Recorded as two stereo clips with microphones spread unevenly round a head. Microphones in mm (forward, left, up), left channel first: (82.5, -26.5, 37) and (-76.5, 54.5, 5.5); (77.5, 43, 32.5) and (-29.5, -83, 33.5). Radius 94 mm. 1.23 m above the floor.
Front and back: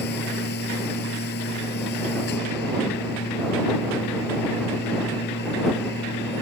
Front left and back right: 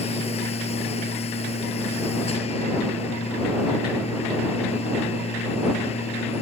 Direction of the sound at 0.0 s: Straight ahead.